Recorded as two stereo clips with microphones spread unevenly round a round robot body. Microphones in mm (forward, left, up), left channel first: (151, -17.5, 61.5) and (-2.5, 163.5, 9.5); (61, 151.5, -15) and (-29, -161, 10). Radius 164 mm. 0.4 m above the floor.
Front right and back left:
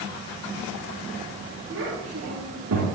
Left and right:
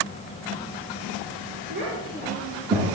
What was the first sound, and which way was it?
A child speaking, 170° right.